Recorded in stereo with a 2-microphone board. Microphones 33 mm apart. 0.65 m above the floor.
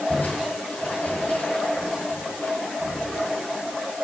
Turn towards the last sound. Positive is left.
turn(degrees=55)  # may be behind; listen again after turning